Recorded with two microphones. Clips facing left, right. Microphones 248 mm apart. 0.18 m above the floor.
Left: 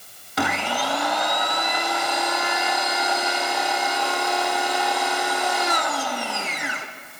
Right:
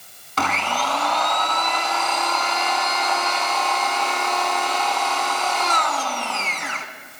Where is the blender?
15° left (ahead or behind), 0.6 m.